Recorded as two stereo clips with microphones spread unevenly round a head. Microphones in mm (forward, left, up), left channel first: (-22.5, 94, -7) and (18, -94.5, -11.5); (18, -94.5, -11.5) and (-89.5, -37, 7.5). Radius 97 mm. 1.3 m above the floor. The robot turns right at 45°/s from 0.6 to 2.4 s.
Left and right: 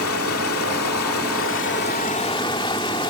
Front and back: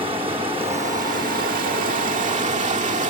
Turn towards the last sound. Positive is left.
turn(degrees=170)